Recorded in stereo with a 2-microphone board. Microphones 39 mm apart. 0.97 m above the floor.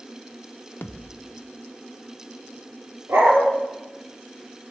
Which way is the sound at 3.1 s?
85° right.